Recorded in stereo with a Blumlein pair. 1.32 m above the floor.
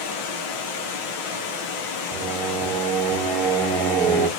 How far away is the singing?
About 0.9 m.